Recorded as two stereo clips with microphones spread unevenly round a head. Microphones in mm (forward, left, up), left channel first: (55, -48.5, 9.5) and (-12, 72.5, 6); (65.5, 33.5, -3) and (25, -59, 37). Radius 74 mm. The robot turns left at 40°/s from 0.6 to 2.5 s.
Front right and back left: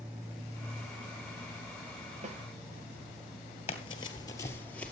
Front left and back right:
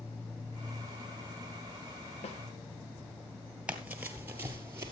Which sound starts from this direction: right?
Running footsteps, at 3.7 s.